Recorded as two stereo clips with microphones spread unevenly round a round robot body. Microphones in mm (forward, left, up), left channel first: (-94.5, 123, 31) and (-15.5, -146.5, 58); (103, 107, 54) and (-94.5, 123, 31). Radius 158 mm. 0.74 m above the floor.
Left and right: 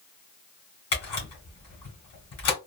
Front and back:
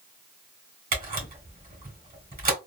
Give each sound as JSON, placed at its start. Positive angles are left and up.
{"t": 0.9, "sound": "a camera shutter", "azimuth_deg": 130, "distance_m": 2.0}